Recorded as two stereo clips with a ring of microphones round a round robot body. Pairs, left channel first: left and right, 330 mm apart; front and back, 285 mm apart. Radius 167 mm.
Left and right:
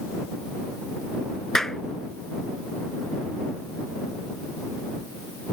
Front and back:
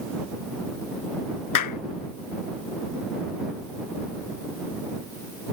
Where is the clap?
Straight ahead.